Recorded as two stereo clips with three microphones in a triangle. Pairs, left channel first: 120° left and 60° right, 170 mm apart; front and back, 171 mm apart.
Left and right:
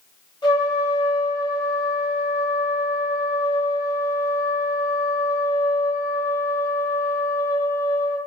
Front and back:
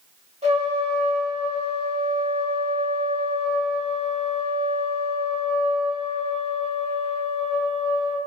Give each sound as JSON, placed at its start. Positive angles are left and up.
{"t": 0.4, "sound": "a trumpet", "azimuth_deg": 170, "distance_m": 1.4}